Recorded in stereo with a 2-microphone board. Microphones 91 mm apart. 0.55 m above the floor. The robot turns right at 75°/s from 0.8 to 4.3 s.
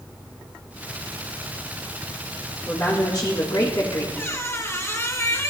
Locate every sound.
2.7 s a woman speaking: 25° left, 1.4 m; by 4.1 s 130° left, 1.4 m
4.2 s a squeak: 20° left (ahead or behind), 1.1 m; by 5.5 s 30° left (ahead or behind), 1.1 m